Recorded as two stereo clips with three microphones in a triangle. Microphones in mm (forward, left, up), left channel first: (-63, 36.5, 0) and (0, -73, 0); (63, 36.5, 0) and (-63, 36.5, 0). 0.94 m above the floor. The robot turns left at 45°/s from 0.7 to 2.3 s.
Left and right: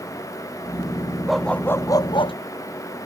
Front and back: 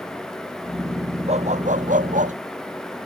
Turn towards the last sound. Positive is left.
turn(degrees=165)